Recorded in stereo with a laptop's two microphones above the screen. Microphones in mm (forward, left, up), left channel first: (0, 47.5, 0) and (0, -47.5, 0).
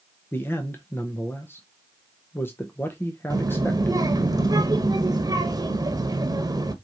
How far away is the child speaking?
About 0.8 m.